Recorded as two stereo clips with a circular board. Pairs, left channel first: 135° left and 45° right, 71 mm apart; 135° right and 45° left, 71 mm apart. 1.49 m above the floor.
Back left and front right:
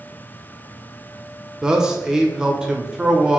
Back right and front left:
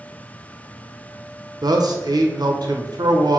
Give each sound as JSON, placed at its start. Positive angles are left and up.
{"t": 1.6, "sound": "a man speaking", "azimuth_deg": 35, "distance_m": 0.8}